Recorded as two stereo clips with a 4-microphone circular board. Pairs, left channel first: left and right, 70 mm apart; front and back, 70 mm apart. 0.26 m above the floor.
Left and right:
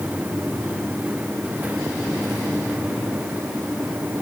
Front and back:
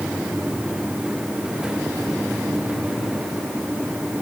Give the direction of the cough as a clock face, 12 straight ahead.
No cough in this recording.